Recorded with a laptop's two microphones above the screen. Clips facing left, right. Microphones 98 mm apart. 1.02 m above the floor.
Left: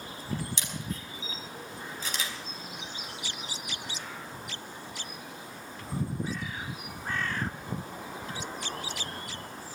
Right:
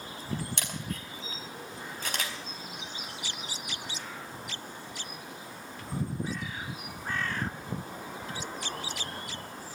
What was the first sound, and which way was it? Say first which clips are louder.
A camera shutter: even; 60° right (ahead or behind).